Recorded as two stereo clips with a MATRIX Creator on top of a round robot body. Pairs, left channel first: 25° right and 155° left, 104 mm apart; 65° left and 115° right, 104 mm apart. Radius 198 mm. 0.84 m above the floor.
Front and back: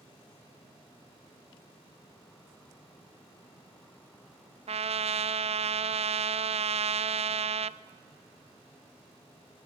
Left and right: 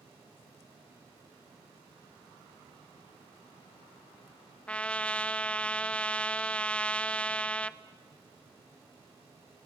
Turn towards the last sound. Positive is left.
turn(degrees=145)